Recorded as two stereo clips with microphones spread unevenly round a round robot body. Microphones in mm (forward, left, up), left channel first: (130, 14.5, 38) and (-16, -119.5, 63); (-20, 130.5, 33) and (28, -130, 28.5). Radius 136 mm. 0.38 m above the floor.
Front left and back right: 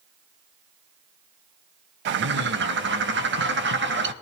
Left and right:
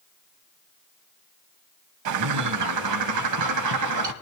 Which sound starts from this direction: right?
A bird, at 2.0 s.